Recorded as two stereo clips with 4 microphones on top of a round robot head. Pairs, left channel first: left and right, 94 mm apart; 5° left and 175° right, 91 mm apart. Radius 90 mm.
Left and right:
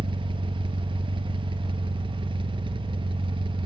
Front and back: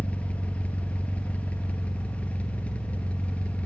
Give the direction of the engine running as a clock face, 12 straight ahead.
2 o'clock.